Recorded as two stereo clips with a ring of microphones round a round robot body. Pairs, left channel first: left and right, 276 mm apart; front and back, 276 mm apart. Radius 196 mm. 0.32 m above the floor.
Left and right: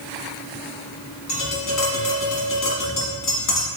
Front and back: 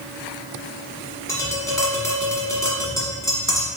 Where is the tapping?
80° left, 1.6 m.